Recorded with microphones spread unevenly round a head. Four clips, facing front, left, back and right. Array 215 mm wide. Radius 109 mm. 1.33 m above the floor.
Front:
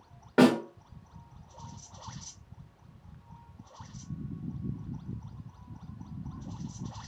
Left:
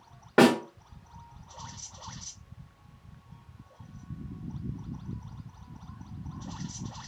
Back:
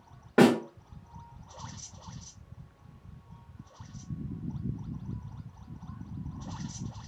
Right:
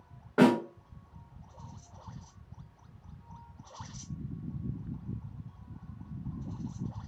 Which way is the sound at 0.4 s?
45° left.